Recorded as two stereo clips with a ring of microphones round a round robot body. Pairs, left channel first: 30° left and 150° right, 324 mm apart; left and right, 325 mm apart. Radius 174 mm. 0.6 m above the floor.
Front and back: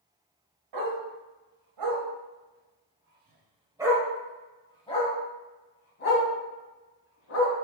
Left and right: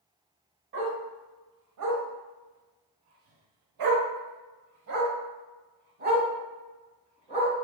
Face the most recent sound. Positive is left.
turn(degrees=-20)